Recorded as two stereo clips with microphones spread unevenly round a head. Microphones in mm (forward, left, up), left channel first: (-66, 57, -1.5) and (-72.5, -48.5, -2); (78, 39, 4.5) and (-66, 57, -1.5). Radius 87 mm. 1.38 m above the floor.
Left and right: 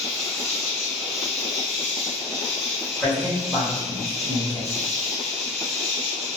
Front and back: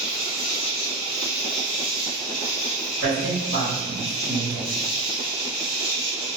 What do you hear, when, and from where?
0.0 s an insect: 10° right, 1.1 m
3.0 s a man speaking: 160° right, 1.9 m